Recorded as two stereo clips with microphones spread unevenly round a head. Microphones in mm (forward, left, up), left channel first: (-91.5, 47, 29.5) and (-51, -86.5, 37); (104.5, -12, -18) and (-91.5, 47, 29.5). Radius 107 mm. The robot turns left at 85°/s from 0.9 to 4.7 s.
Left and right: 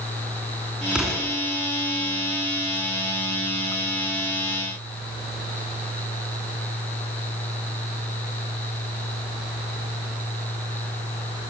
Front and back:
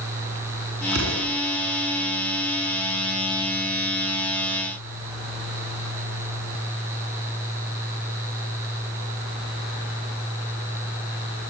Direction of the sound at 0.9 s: 150° right.